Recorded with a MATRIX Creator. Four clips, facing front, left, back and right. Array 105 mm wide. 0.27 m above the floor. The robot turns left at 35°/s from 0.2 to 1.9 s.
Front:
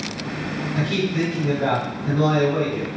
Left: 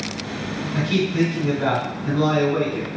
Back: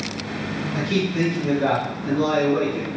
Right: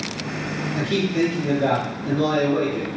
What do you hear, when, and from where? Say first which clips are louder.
0.8 s a man speaking: left 1 dB, even; 135° left, 1.3 m; by 2.9 s 95° left, 1.3 m